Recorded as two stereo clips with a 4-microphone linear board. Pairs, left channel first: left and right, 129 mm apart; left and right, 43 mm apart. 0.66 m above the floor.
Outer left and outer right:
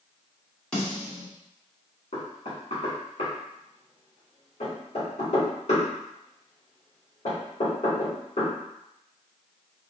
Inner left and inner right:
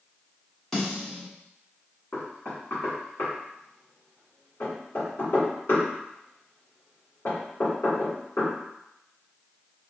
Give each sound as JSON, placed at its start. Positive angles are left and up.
{"t": 0.7, "sound": "a snare drum", "side_deg": 10, "distance_m": 1.1}
{"t": 2.1, "sound": "knocking", "side_deg": 55, "distance_m": 1.7}